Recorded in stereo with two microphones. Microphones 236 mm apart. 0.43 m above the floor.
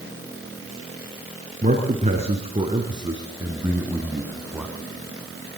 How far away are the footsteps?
I don't hear footsteps.